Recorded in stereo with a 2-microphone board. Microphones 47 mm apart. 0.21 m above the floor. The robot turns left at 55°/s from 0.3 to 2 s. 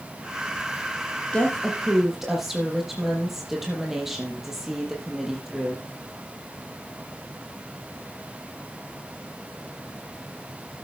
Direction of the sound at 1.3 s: 30° left.